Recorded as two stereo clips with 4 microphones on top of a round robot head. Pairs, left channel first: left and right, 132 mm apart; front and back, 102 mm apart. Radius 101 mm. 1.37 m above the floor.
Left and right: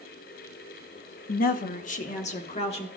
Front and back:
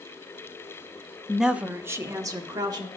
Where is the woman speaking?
85° left, 0.8 m; by 2.9 s 130° left, 1.7 m.